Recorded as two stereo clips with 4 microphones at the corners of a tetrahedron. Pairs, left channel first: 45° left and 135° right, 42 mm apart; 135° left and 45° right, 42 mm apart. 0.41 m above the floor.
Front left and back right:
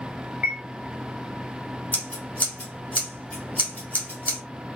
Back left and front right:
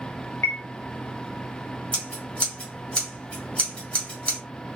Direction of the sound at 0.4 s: 175° right.